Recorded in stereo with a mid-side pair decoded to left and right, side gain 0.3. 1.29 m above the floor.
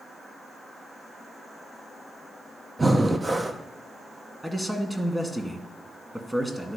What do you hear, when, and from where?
2.8 s breathing: 35° right, 0.9 m
4.4 s a man speaking: 15° right, 2.0 m